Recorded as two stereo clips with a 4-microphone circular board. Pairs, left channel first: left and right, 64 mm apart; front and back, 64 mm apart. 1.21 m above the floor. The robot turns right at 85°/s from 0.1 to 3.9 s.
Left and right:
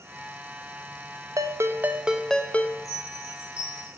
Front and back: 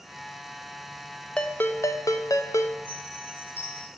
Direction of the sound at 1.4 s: 75° right.